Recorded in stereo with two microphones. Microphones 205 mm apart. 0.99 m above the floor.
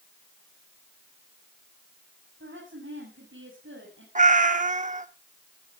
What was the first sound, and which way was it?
A woman speaking, 70° right (ahead or behind).